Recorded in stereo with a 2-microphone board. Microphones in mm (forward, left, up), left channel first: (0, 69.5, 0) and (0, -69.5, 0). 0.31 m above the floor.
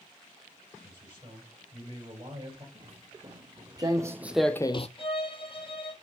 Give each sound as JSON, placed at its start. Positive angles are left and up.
{"t": 0.8, "sound": "a man speaking", "side_deg": -40, "distance_m": 6.0}
{"t": 2.8, "sound": "footsteps", "side_deg": -40, "distance_m": 2.0}
{"t": 5.0, "sound": "a violin", "side_deg": 40, "distance_m": 1.3}